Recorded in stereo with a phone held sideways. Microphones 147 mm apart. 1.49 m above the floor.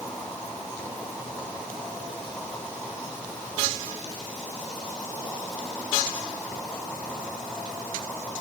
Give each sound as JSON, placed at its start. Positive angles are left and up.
{"t": 0.0, "sound": "an insect", "side_deg": 0, "distance_m": 6.0}